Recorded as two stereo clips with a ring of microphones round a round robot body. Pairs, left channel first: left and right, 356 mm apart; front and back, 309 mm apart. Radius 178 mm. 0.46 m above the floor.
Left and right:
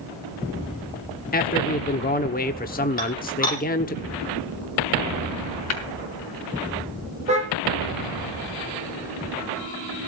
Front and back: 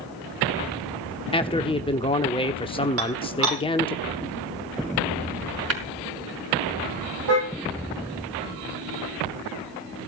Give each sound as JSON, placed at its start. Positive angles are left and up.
{"t": 1.3, "sound": "a man speaking", "azimuth_deg": 55, "distance_m": 1.1}
{"t": 3.0, "sound": "dishes clattering", "azimuth_deg": 160, "distance_m": 10.0}
{"t": 5.7, "sound": "tapping", "azimuth_deg": 140, "distance_m": 5.0}
{"t": 7.3, "sound": "a car horn", "azimuth_deg": -160, "distance_m": 8.0}